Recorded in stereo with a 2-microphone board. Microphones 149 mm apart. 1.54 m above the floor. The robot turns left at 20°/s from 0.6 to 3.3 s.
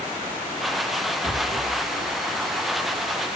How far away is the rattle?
About 8 m.